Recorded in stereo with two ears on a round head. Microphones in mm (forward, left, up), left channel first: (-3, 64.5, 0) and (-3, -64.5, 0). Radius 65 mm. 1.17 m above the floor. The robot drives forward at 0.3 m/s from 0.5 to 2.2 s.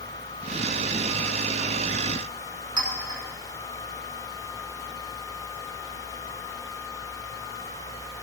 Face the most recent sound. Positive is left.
turn(degrees=-35)  # may be behind; listen again after turning